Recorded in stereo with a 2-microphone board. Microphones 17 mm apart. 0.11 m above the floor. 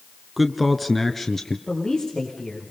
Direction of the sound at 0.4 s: 10° right (ahead or behind).